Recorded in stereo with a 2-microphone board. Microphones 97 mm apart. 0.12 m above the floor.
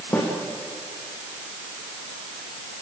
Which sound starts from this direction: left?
A snare drum, at 0.1 s.